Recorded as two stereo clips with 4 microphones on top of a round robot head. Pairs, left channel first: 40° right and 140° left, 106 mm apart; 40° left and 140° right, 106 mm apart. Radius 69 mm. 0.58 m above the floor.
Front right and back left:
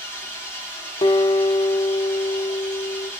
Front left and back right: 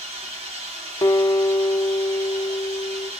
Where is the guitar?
15° right, 0.9 m.